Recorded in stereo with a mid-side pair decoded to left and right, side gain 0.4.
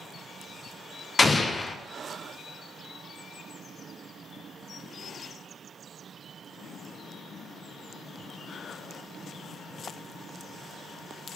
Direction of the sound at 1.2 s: 30° left.